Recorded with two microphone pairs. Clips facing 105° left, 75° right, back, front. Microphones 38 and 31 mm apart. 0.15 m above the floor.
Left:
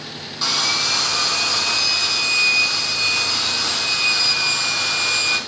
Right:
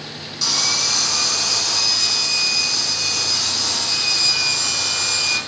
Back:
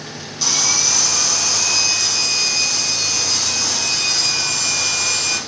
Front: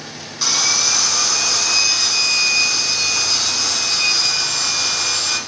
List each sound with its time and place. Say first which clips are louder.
0.4 s sawing: left 2 dB, front 1 dB; 60° left, 1.8 m